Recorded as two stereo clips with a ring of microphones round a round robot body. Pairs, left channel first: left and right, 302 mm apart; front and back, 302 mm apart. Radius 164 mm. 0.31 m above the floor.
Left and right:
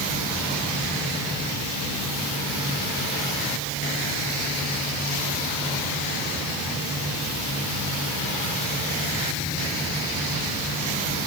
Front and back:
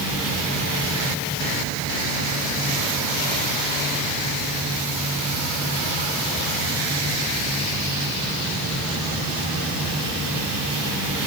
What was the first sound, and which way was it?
Only background noise.